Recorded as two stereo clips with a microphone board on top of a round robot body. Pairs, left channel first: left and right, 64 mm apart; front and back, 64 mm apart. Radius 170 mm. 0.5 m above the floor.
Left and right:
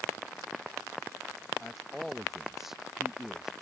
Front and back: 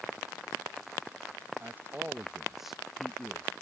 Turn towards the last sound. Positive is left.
turn(degrees=-20)